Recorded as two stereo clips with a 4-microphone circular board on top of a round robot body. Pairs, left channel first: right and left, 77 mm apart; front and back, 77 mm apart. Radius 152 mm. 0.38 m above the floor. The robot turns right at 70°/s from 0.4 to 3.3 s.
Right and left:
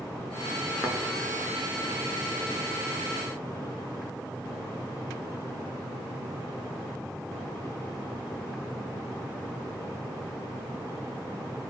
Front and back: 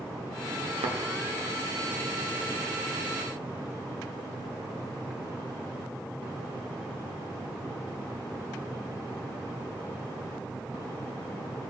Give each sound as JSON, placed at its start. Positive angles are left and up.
{"t": 0.8, "sound": "a thud", "azimuth_deg": 175, "distance_m": 0.8}